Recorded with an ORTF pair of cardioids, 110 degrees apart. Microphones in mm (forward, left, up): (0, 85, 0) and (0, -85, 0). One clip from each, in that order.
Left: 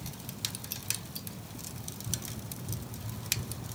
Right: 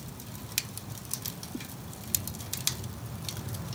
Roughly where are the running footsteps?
Ahead left.